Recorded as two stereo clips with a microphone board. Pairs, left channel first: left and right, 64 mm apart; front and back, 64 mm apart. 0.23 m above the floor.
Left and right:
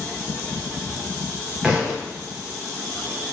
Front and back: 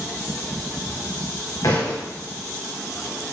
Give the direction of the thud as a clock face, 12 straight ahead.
12 o'clock.